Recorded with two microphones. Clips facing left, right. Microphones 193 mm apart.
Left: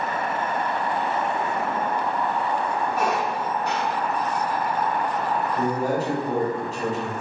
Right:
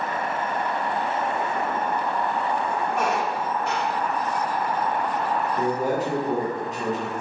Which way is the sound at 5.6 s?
20° right (ahead or behind).